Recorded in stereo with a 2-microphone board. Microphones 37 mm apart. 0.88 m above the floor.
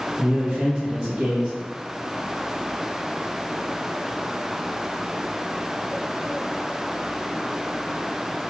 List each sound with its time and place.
0.2 s a man speaking: 20° right (ahead or behind), 0.6 m